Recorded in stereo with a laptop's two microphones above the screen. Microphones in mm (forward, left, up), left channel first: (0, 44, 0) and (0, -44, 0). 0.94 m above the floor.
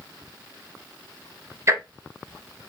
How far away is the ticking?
About 0.5 m.